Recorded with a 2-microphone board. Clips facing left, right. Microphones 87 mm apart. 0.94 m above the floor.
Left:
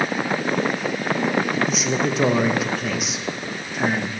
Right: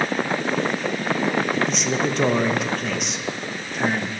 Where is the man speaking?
Centre (ahead or behind), 0.6 m.